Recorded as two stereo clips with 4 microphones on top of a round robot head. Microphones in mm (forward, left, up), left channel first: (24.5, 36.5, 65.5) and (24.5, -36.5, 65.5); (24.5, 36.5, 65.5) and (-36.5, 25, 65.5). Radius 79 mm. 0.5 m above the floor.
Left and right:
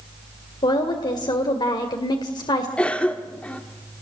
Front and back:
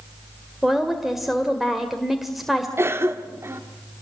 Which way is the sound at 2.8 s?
160° left.